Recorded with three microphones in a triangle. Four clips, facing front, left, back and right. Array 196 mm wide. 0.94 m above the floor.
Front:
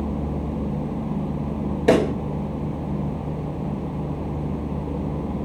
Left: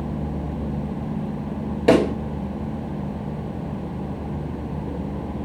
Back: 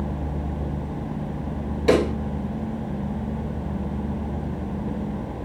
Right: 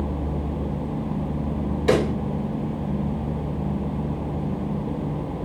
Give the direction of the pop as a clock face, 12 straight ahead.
10 o'clock.